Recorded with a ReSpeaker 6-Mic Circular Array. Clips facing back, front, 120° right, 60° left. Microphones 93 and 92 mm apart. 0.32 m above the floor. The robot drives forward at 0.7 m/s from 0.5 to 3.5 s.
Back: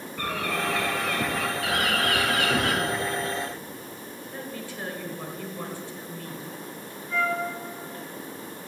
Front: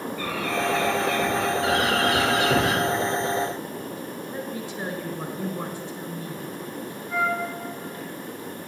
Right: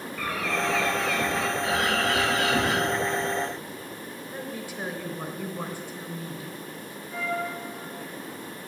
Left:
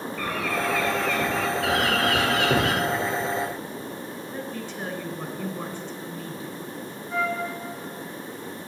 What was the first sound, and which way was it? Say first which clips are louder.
A bird: front 1 dB, left 1 dB; 150° left.